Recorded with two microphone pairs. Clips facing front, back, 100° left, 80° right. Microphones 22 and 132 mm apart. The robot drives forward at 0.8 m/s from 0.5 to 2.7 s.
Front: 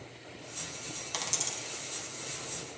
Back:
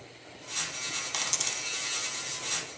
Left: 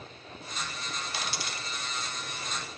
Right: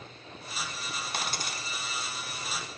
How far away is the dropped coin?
About 0.6 m.